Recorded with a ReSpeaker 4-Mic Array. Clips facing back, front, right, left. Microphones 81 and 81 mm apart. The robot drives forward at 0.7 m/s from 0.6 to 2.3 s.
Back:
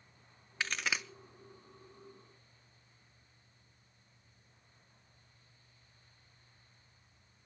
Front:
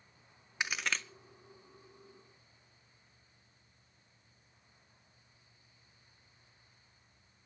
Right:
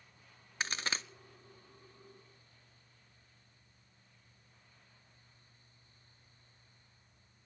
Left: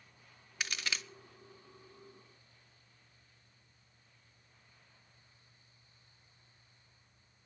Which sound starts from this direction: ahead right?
A crack, at 0.6 s.